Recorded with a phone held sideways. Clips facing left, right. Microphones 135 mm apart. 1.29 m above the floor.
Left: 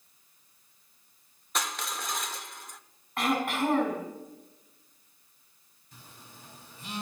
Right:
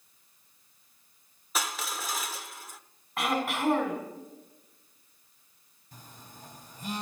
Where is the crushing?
5° right (ahead or behind), 0.9 m.